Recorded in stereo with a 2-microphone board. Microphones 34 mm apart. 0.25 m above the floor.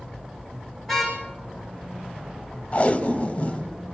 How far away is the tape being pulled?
About 1.3 m.